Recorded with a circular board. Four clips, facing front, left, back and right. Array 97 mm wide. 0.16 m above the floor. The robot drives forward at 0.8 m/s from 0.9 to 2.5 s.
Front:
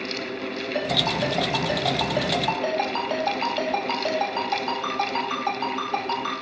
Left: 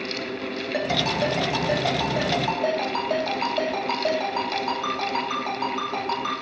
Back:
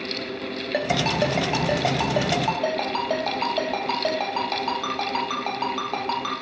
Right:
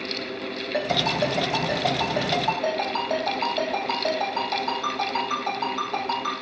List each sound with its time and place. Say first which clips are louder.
0.7 s a ringtone: right 1 dB, back 3 dB; 170° left, 1.8 m; by 6.3 s 175° left, 3 m